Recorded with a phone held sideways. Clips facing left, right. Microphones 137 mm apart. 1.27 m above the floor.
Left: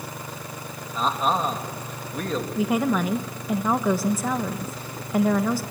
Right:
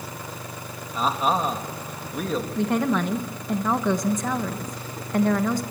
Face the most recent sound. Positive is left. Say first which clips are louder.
# left 1 dB
turn(degrees=5)  # may be behind; listen again after turning